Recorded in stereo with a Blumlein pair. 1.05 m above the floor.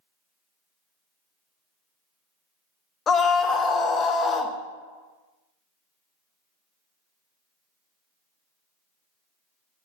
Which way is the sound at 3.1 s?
20° left.